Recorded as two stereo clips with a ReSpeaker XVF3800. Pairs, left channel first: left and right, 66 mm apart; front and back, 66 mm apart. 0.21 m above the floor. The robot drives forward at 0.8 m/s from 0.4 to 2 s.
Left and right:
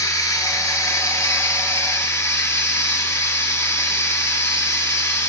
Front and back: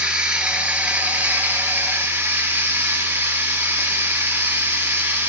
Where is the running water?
110° left, 3 m; by 5.3 s 130° left, 3.5 m.